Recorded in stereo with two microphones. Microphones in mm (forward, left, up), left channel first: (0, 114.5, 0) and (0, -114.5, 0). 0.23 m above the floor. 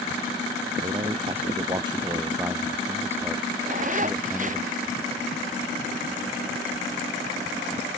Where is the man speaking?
30° right (ahead or behind); by 4.6 s centre (ahead or behind).